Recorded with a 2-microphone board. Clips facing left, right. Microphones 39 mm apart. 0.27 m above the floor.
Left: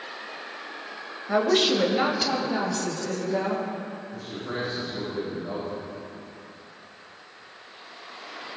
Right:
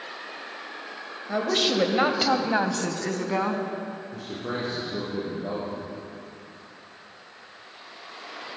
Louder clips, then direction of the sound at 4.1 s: Right 1 dB; 80° right.